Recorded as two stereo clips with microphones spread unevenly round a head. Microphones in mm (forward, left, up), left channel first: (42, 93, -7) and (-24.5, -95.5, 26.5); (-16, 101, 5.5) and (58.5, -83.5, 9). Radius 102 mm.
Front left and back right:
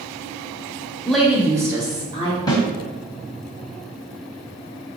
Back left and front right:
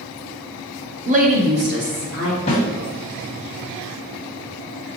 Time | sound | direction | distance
1.1 | a woman speaking | 20° right | 0.8 m
2.5 | a snare drum | 145° left | 1.6 m